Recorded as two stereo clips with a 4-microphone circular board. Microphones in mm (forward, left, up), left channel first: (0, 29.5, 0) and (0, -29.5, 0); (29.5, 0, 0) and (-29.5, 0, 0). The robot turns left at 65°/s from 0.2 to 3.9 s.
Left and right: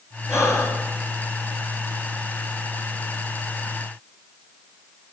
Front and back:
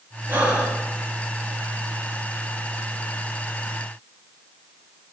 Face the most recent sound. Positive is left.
turn(degrees=-115)